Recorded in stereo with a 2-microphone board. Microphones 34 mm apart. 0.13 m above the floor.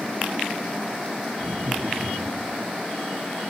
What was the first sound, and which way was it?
Laughter, 55° right (ahead or behind).